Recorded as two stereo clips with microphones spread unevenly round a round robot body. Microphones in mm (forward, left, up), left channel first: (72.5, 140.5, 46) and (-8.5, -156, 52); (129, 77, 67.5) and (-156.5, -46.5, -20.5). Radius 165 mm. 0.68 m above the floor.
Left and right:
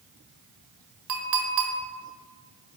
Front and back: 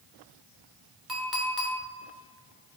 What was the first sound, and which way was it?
A clink, 70° right.